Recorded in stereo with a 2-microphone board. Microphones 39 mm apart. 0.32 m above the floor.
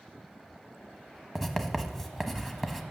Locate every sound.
1.4 s writing: 5° left (ahead or behind), 0.9 m